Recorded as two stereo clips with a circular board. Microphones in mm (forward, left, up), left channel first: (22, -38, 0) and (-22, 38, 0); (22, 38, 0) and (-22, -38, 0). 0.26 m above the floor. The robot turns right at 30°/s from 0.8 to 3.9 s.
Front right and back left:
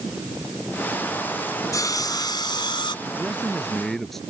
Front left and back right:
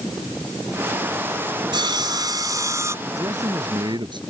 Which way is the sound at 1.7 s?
105° right.